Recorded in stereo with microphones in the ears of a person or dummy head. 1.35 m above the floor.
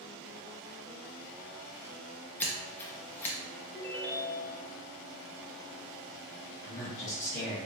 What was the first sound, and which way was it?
Scissors, 15° left (ahead or behind).